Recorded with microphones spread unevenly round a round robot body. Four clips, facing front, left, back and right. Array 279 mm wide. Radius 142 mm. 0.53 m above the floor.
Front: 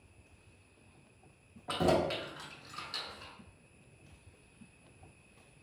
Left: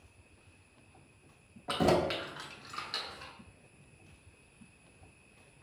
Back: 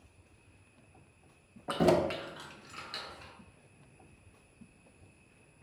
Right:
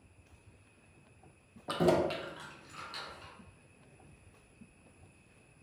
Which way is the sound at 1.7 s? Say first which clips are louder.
Even, back 3 dB; 175° right.